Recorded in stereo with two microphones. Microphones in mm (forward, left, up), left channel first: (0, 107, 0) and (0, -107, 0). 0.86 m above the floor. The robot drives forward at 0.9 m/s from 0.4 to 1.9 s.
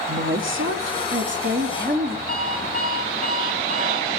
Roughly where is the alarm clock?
Right.